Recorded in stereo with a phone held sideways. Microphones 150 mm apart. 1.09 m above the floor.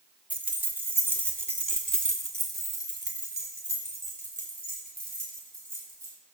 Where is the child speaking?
I don't hear a child speaking.